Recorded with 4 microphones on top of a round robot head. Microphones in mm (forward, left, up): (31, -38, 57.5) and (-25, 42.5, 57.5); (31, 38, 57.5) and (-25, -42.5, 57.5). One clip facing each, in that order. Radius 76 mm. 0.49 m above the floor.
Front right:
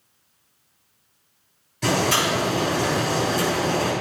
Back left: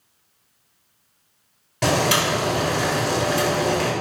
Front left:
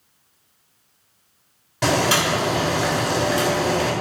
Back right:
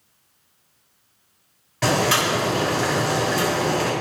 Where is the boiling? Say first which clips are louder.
Back left 1 dB, front left 1 dB; 125° left, 3.5 m.